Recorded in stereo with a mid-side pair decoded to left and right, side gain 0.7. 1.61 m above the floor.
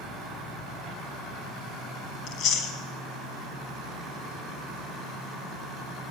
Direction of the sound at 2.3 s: 55° left.